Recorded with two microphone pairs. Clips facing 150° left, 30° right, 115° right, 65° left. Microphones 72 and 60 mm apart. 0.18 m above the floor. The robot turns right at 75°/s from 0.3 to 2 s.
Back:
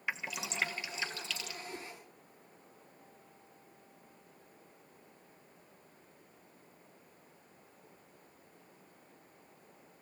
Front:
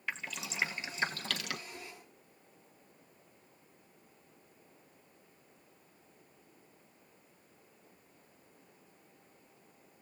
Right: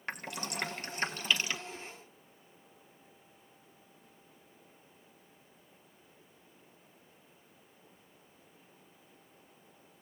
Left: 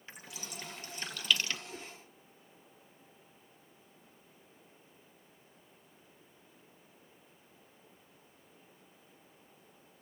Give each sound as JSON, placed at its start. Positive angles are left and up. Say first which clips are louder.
{"t": 0.1, "sound": "dripping", "louder": "back 2 dB, right 9 dB", "azimuth_deg": -130, "distance_m": 1.3}
{"t": 1.7, "sound": "a whoosh", "louder": "back 3 dB, right 1 dB", "azimuth_deg": 120, "distance_m": 5.0}